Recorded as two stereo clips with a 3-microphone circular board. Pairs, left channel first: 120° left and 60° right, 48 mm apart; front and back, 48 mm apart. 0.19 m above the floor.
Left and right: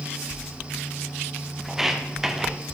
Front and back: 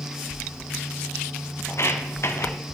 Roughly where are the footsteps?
Ahead left.